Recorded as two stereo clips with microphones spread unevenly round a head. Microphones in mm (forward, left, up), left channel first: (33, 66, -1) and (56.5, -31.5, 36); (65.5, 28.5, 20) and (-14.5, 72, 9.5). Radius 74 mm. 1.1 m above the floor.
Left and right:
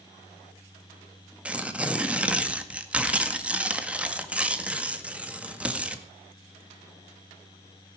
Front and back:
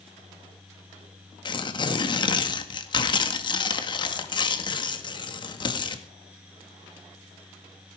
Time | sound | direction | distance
1.4 | tearing paper | 5° left | 1.9 m